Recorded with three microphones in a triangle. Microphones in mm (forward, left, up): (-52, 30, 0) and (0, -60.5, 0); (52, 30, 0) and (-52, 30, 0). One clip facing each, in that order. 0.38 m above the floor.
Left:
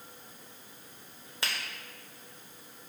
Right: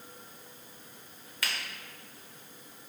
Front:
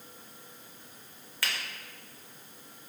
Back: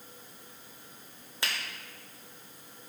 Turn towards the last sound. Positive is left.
turn(degrees=140)